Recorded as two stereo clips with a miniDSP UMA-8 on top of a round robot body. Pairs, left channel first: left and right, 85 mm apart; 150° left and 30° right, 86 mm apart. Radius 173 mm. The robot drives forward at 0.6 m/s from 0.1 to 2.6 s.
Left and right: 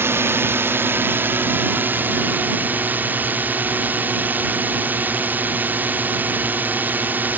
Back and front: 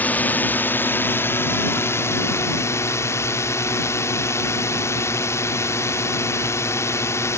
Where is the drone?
145° right; by 7.4 s 155° right.